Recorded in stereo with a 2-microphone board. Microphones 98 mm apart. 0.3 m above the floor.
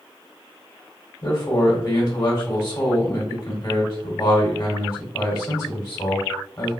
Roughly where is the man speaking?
Left.